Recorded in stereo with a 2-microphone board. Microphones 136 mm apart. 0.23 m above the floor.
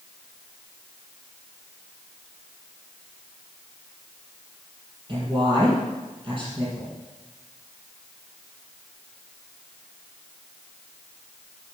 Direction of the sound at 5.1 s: 40° right (ahead or behind).